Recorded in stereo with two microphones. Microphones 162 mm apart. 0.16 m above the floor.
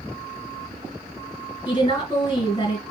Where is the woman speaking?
30° left (ahead or behind), 2.5 m.